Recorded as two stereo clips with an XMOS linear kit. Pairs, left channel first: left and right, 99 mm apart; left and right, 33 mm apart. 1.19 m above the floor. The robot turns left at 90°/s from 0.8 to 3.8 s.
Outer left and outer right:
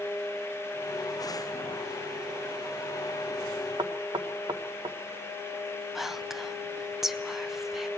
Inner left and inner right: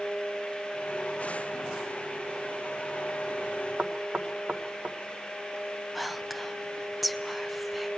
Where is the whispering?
5° right (ahead or behind), 0.7 m.